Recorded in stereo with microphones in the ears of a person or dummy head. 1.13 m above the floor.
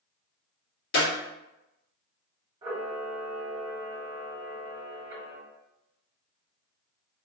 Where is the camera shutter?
20° right (ahead or behind), 1.6 m.